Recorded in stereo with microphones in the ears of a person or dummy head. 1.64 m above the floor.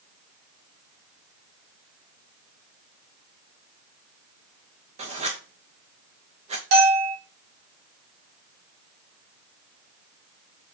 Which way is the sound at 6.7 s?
70° right (ahead or behind).